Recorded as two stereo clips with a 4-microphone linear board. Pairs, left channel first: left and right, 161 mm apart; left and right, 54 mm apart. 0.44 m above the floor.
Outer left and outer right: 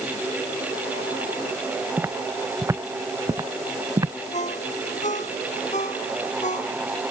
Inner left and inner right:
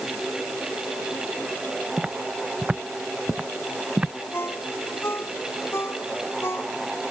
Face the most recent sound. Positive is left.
turn(degrees=45)  # may be behind; listen again after turning